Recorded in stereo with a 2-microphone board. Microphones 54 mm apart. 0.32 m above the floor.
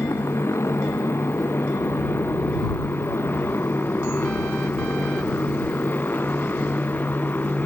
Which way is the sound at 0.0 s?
60° left (ahead or behind).